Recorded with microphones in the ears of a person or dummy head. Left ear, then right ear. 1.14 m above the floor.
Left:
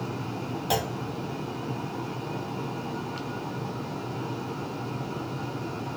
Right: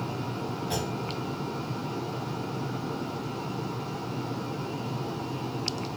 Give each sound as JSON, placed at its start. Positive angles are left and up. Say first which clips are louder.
{"t": 0.7, "sound": "a clunk", "louder": "left 7 dB", "side_deg": 25, "distance_m": 0.6}